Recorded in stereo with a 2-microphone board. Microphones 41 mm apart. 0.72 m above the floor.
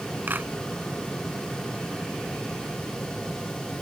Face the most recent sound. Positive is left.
turn(degrees=-50)  # may be behind; listen again after turning